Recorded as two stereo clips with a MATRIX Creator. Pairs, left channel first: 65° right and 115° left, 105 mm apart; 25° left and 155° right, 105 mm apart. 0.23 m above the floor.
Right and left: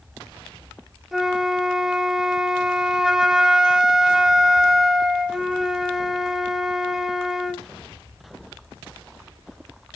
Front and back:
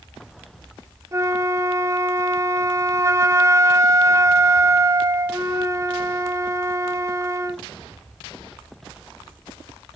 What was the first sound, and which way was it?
A flute, 165° right.